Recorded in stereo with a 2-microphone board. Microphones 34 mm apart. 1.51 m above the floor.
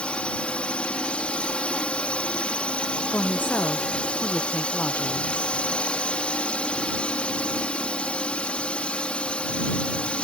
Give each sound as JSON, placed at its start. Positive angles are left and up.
{"t": 0.0, "sound": "a drone", "side_deg": 30}
{"t": 3.1, "sound": "a woman speaking", "side_deg": 65}